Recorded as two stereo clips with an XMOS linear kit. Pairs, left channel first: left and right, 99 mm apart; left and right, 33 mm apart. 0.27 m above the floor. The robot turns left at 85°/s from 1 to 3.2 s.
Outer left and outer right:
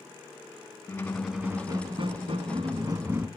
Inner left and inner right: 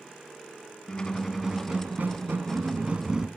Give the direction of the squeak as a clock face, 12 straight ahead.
11 o'clock.